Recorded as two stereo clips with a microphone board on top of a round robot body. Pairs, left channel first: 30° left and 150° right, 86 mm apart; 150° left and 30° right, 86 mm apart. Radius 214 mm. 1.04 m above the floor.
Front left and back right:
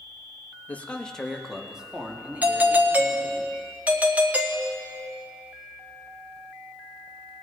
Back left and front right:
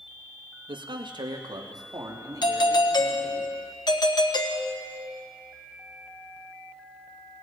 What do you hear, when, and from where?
0.7 s a man speaking: 40° right, 2.0 m; by 3.4 s 85° right, 4.5 m
2.4 s a doorbell: 140° left, 2 m